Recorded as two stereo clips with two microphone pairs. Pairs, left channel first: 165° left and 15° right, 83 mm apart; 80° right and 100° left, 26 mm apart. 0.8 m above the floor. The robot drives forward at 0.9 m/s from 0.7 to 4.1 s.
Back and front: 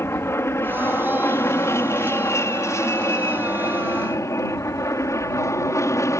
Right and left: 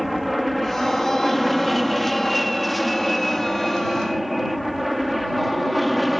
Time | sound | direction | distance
0.0 | an aircraft | 170° right | ?